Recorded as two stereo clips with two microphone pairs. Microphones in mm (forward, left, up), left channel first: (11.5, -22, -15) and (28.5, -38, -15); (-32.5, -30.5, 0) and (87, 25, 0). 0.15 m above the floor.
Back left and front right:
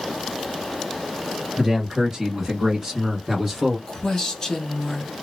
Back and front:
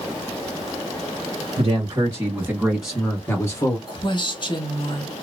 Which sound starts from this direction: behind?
A woman speaking, at 3.9 s.